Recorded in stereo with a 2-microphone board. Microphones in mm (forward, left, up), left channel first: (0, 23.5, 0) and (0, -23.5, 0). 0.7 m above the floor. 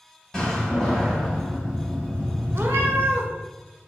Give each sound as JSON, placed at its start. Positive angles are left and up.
{"t": 0.3, "sound": "a door slam", "side_deg": 10, "distance_m": 1.8}
{"t": 2.5, "sound": "a cat meowing", "side_deg": -55, "distance_m": 0.6}